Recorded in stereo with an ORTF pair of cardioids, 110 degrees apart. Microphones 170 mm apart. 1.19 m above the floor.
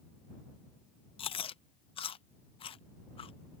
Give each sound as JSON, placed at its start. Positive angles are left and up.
{"t": 1.2, "sound": "chewing", "azimuth_deg": 35}